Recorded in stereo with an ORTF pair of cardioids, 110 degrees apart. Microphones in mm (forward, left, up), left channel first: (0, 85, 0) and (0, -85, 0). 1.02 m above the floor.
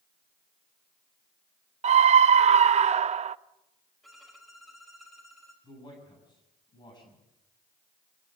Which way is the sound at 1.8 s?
40° right.